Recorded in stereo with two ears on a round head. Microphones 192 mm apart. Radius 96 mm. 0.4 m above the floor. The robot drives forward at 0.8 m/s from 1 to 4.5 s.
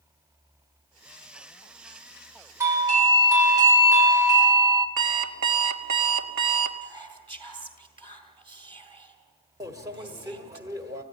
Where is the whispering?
25° right (ahead or behind), 2.5 m.